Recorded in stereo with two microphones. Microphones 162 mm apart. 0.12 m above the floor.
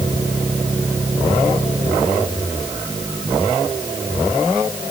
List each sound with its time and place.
Only background noise.